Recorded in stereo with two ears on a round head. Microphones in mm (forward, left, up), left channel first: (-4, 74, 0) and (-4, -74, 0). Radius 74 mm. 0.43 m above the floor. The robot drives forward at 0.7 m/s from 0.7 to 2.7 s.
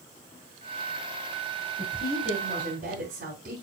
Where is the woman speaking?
50° right (ahead or behind), 4.5 m; by 3.6 s 55° right (ahead or behind), 4 m.